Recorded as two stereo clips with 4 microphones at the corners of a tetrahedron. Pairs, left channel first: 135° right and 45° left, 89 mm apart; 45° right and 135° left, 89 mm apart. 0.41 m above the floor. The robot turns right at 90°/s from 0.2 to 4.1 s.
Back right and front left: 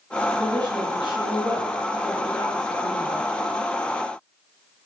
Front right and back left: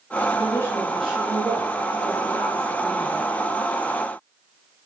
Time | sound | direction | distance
0.3 | a woman speaking | 15° right | 7.5 m